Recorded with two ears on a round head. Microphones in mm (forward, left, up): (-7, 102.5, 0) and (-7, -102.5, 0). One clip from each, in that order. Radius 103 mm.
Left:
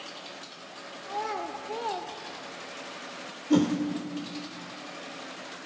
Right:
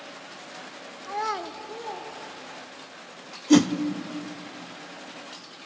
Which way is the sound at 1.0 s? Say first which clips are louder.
Right 3 dB; 50° right (ahead or behind).